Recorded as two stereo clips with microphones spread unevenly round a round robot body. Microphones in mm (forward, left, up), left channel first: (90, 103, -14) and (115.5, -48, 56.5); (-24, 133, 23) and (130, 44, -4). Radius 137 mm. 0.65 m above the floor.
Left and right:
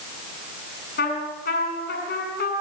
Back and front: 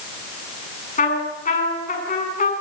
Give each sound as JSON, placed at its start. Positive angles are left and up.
{"t": 1.0, "sound": "a trumpet", "azimuth_deg": 110, "distance_m": 7.0}